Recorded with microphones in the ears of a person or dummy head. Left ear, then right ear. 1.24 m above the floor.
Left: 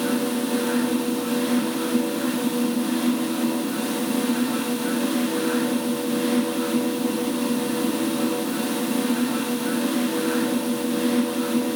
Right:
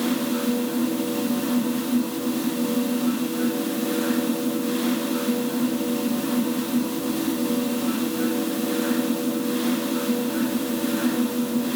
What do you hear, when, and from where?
Only background noise.